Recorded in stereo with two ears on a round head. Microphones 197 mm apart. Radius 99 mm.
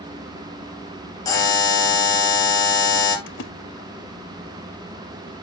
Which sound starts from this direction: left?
A splash, at 3.3 s.